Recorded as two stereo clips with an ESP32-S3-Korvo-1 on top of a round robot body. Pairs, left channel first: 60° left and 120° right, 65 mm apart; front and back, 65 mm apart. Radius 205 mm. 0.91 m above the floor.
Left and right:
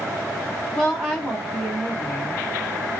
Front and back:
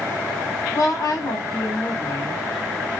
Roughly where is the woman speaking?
Ahead.